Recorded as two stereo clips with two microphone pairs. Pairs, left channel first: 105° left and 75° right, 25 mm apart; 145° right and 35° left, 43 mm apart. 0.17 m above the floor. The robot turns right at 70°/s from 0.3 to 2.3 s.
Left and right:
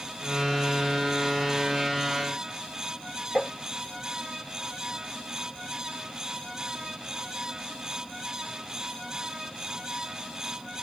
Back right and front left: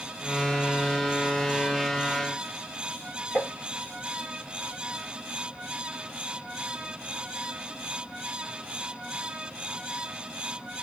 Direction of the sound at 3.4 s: 175° right.